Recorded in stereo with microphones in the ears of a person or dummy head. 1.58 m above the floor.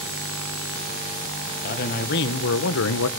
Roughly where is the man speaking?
Left.